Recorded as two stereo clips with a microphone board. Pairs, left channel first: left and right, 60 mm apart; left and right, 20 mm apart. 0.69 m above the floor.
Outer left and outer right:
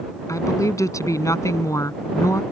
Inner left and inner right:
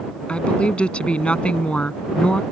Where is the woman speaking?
60° left (ahead or behind).